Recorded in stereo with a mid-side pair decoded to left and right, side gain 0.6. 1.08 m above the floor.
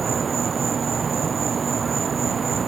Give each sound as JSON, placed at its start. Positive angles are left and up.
{"t": 0.0, "sound": "an insect", "azimuth_deg": -30}